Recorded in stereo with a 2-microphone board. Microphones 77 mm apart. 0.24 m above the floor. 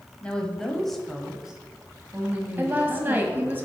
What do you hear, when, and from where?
0.2 s a woman speaking: 15° left (ahead or behind), 1.1 m; by 3.6 s 30° right (ahead or behind), 1.4 m
2.6 s a woman speaking: 25° right (ahead or behind), 1.1 m